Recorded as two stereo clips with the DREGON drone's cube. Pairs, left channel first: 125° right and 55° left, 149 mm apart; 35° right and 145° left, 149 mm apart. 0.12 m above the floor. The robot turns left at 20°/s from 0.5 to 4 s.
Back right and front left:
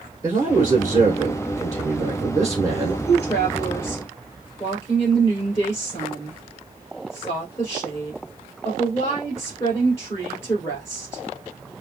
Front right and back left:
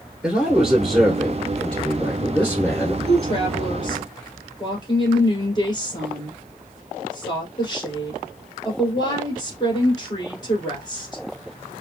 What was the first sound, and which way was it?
A man speaking, 70° left.